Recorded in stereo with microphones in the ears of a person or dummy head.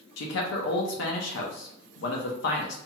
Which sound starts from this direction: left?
A man speaking, at 0.2 s.